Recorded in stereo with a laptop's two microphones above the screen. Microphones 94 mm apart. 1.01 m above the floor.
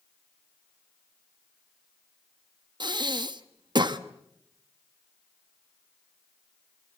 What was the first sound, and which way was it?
Breathing, 50° right (ahead or behind).